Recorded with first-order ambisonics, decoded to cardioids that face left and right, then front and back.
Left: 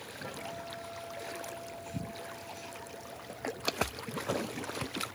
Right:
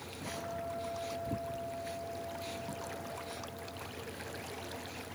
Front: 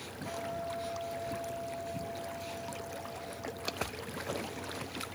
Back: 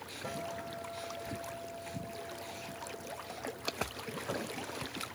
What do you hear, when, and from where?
0.2 s a guitar: 150° left, 5.5 m